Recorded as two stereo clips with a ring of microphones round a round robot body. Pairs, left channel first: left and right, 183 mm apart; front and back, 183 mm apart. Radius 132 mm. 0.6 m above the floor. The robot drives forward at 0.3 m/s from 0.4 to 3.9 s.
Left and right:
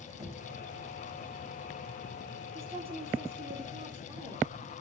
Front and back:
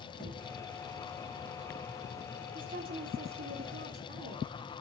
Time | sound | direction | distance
0.2 | knocking | 15° right | 3.5 m
2.5 | a woman speaking | 145° right | 1.1 m